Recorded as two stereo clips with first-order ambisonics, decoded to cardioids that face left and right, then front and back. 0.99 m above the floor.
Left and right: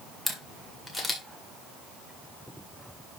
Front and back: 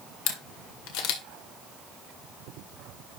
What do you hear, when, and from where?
0.3 s a camera shutter: 5° left, 1.8 m